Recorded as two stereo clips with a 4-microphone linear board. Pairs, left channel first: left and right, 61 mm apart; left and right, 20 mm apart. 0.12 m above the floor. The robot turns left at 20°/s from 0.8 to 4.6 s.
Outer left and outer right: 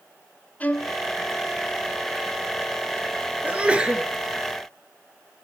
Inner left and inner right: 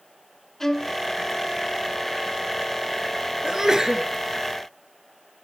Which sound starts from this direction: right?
A sneeze, at 3.4 s.